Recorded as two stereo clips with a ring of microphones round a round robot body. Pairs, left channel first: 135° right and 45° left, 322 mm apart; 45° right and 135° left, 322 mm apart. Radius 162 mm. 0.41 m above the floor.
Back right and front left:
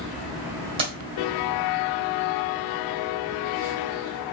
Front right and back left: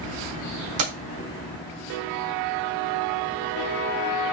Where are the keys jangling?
115° left, 1.3 m.